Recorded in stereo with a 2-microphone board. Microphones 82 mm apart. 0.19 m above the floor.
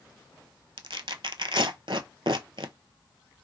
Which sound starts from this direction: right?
Tearing paper, at 0.8 s.